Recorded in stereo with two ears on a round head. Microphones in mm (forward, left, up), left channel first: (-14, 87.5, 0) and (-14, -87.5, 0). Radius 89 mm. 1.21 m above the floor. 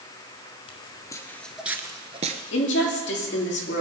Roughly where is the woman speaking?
Left.